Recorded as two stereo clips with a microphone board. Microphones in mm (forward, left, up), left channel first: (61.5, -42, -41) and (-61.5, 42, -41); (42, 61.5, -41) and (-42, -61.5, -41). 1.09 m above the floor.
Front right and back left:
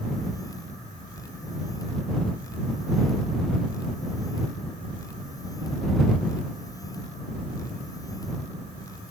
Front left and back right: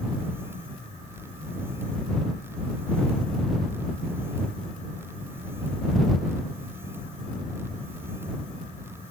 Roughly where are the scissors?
I don't hear scissors.